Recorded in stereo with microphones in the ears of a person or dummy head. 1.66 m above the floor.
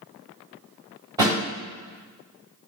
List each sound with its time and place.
1.2 s a thud: 20° right (ahead or behind), 1.7 m